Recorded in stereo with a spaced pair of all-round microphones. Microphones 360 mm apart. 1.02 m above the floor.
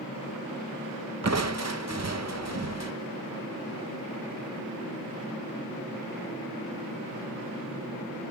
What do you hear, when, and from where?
1.2 s crushing: 45° right (ahead or behind), 0.7 m